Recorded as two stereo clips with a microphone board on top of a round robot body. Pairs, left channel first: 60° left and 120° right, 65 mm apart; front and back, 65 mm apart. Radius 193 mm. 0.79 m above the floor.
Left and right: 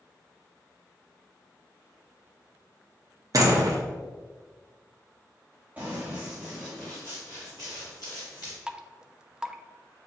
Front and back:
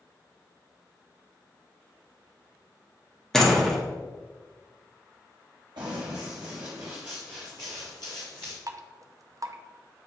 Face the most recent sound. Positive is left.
turn(degrees=160)